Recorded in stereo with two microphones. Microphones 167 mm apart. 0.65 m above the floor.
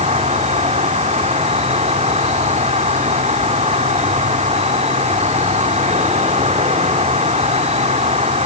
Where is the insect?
45° right (ahead or behind), 1.8 m.